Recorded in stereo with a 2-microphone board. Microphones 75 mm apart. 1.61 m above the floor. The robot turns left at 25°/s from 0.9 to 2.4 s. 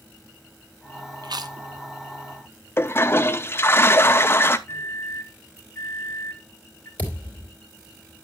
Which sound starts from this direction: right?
Chewing, at 1.2 s.